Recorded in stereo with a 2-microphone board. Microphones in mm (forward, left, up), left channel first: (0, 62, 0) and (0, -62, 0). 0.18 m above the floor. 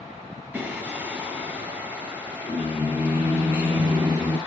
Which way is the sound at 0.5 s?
15° right (ahead or behind).